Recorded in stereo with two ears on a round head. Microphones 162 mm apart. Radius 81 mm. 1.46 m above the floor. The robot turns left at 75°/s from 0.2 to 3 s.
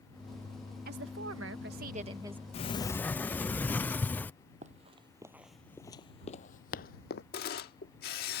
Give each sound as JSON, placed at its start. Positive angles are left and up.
{"t": 0.8, "sound": "a woman speaking", "azimuth_deg": -55}
{"t": 2.5, "sound": "a sliding door", "azimuth_deg": 45}
{"t": 4.6, "sound": "running footsteps", "side_deg": -40}
{"t": 7.3, "sound": "a camera shutter", "side_deg": 55}